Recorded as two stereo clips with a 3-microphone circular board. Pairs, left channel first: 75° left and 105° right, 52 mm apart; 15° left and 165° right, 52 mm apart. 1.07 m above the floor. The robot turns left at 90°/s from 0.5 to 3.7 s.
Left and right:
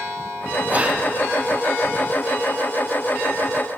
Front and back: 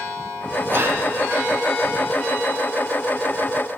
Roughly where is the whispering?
Behind right.